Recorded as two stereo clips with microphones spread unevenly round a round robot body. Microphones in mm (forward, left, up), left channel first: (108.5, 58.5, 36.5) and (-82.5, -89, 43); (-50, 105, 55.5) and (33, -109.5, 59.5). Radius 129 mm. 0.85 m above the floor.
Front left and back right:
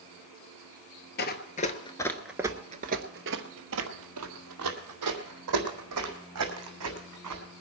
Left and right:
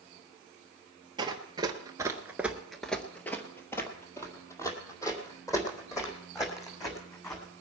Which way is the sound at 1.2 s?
Straight ahead.